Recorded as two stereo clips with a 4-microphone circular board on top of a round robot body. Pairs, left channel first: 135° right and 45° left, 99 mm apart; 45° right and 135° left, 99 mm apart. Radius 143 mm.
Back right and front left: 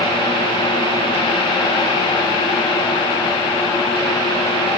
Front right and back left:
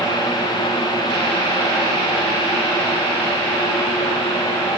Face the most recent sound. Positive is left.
No sound to turn to.